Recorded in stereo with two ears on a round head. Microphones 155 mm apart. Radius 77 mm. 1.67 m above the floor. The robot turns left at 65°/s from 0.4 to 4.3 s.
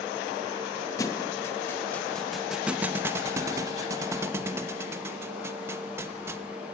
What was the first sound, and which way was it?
A thud, 20° left (ahead or behind).